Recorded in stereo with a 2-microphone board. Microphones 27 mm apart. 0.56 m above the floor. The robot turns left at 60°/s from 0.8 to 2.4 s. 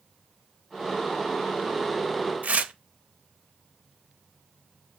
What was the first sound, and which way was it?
Tearing paper, 65° right (ahead or behind).